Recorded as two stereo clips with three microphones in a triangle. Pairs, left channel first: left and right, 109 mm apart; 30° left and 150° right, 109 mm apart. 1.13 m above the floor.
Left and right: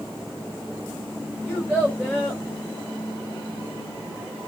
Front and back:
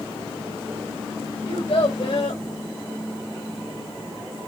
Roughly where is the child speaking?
Ahead left.